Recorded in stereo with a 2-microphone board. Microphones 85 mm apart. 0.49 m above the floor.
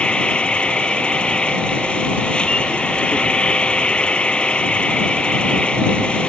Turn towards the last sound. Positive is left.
turn(degrees=10)  # may be behind; listen again after turning